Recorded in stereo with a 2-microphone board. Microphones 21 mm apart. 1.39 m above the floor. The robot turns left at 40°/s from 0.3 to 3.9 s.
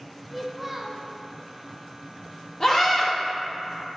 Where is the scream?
35° left (ahead or behind), 1.6 m; by 3.1 s 15° left (ahead or behind), 1.6 m.